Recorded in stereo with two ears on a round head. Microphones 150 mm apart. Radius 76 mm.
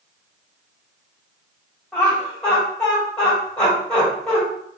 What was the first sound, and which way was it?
Laughter, 5° left (ahead or behind).